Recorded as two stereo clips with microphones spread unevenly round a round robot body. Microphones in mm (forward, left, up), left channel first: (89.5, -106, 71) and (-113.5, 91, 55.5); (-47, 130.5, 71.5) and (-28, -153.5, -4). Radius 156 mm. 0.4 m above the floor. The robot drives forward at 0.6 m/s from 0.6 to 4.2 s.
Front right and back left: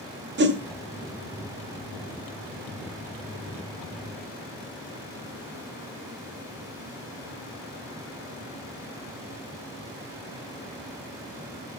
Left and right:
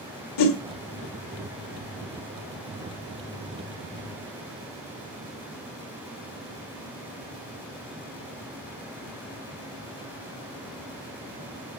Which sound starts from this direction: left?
A whoosh, at 0.4 s.